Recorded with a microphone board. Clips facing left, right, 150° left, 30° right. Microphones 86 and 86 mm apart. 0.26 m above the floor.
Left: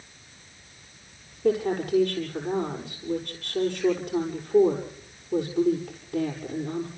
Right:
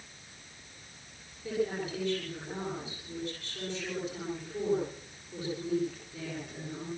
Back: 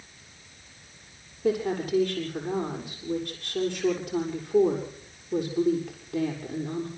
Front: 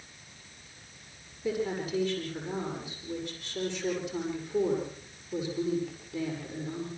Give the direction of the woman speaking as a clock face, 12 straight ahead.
8 o'clock.